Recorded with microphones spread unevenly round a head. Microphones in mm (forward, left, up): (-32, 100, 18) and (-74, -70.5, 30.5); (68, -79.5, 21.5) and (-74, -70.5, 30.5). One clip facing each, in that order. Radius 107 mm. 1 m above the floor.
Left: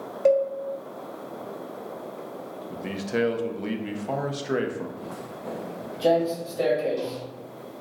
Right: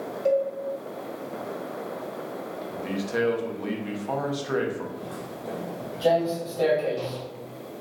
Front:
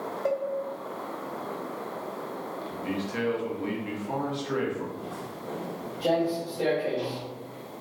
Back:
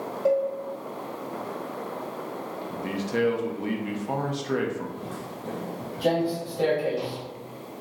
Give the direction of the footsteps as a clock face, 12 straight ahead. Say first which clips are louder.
Right 1 dB, back 1 dB; 6 o'clock.